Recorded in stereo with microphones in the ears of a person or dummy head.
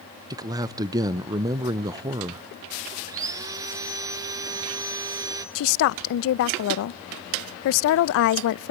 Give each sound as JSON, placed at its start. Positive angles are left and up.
{"t": 0.3, "sound": "a man speaking", "side_deg": -20, "distance_m": 0.6}
{"t": 3.1, "sound": "sawing", "side_deg": -20, "distance_m": 0.8}
{"t": 5.5, "sound": "a woman speaking", "side_deg": 60, "distance_m": 0.5}